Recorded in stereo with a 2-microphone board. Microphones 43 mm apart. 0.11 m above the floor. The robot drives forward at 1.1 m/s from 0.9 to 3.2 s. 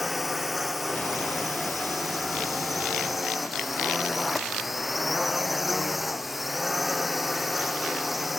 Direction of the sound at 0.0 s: 5° right (ahead or behind).